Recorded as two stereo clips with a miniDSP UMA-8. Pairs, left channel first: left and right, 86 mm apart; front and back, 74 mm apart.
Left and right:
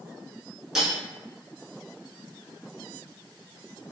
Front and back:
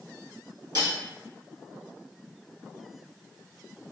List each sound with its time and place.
0.8 s cutlery clinking: 175° right, 1.4 m